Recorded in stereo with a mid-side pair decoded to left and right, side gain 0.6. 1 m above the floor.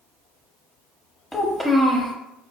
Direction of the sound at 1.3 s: 10° left.